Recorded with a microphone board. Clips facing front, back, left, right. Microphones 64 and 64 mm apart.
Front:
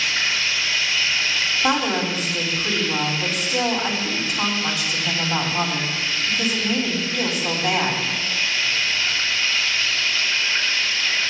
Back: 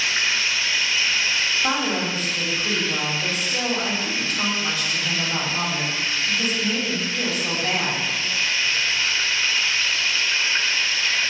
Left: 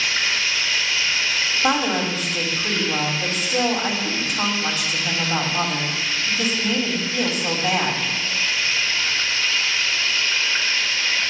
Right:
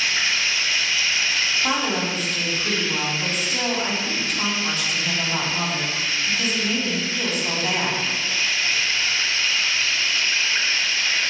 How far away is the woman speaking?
About 2.5 m.